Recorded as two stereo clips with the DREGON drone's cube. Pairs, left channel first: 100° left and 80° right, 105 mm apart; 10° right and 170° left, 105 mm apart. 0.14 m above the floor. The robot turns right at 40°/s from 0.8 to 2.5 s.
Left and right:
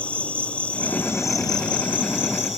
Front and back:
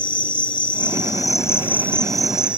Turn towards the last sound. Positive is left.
turn(degrees=90)